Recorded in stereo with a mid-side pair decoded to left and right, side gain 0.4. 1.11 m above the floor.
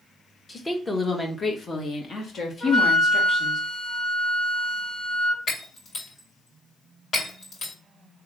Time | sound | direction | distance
0.5 | a woman speaking | 20° left | 1.6 m
2.6 | a flute | 60° left | 3 m
5.5 | breaking glass | 60° left | 2.5 m